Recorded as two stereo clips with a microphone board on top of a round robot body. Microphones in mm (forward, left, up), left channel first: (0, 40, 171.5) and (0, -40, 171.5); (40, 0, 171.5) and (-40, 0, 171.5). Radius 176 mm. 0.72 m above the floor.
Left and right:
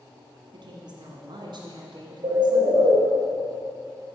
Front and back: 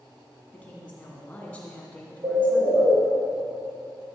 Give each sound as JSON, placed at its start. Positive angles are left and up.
{"t": 0.5, "sound": "a woman speaking", "azimuth_deg": -75, "distance_m": 1.6}
{"t": 2.2, "sound": "a bird", "azimuth_deg": -120, "distance_m": 1.5}